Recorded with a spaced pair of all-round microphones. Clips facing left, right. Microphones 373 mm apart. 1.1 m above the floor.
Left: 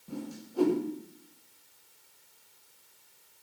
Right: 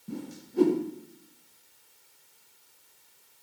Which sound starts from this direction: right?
A whoosh, at 0.1 s.